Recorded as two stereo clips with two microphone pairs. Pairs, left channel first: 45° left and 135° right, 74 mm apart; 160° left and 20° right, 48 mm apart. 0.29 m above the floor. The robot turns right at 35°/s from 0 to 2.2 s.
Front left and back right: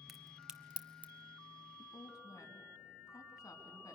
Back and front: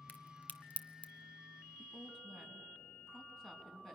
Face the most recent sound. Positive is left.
turn(degrees=75)